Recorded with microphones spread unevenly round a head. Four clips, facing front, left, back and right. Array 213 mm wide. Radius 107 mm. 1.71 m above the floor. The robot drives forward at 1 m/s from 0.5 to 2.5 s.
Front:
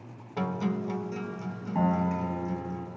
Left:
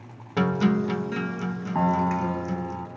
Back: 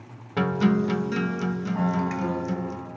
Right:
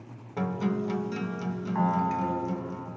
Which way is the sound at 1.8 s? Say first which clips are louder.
Left 3 dB, front 2 dB; 70° left.